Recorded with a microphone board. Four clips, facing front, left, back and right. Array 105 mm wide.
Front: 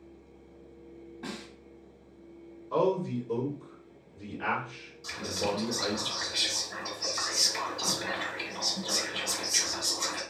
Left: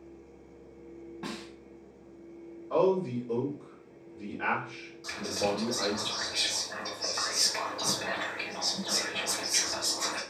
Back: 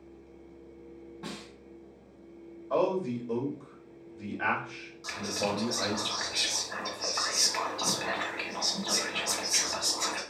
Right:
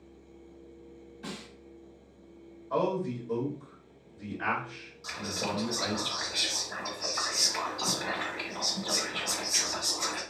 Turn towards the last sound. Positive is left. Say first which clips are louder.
# left 4 dB, even
turn(degrees=180)